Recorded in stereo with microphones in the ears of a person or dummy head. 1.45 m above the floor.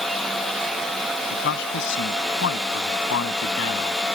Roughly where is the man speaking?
Left.